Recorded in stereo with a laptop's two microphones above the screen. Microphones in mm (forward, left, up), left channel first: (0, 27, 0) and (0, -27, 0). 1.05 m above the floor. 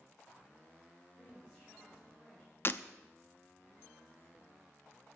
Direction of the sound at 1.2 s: 20° left (ahead or behind).